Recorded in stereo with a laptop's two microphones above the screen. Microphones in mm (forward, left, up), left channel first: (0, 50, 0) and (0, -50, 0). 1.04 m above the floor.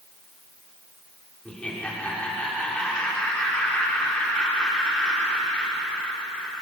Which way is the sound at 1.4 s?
10° left (ahead or behind).